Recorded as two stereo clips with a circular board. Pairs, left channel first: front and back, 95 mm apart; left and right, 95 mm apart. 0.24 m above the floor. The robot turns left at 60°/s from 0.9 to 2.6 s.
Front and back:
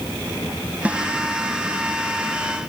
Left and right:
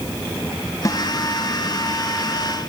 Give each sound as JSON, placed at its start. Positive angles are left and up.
{"t": 0.8, "sound": "a snare drum", "azimuth_deg": 115}